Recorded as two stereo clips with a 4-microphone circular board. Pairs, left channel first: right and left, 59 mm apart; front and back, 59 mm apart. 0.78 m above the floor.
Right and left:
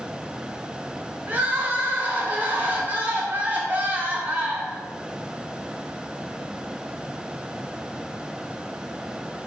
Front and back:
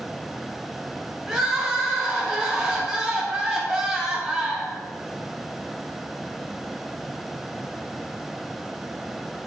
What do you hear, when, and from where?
1.3 s crying: 105° left, 0.8 m